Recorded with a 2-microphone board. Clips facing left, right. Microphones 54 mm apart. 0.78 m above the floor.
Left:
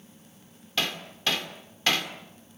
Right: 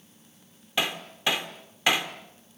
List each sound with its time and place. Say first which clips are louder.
0.8 s hammering: right 2 dB; 15° right (ahead or behind), 1.8 m